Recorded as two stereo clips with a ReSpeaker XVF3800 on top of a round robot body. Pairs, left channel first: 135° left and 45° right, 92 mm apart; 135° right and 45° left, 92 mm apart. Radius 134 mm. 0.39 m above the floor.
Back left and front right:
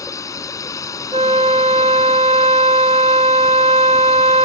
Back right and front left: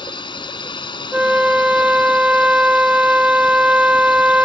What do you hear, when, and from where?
0.0 s a drone: 170° right
1.1 s a flute: 35° right